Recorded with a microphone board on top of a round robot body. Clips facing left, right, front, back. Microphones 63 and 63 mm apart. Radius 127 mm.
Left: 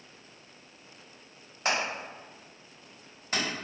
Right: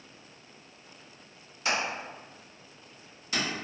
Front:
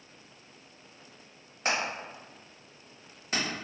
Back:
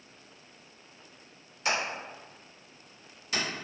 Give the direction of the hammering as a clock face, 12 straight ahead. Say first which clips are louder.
Even, even; 10 o'clock.